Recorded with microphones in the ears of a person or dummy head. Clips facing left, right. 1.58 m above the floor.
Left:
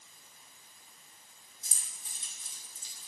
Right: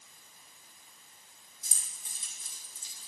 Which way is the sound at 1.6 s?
80° right.